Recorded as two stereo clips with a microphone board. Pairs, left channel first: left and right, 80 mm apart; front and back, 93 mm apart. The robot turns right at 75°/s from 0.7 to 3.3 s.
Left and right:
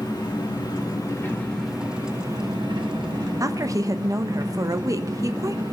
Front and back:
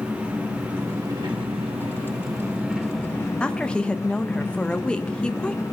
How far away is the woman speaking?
About 0.5 m.